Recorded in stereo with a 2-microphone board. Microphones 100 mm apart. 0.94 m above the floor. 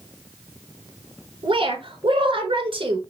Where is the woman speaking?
60° right (ahead or behind), 1.3 m.